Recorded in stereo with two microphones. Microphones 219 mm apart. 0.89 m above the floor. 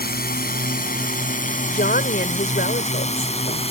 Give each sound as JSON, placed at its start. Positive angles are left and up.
{"t": 0.0, "sound": "a drone", "side_deg": 45}
{"t": 1.7, "sound": "a woman speaking", "side_deg": 45}